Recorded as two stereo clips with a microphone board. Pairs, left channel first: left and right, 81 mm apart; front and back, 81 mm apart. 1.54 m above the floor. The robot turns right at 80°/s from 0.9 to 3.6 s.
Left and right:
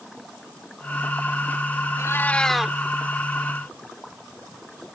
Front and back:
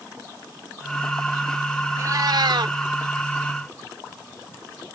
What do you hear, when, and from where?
2.0 s a cat meowing: 130° left; by 2.8 s 165° right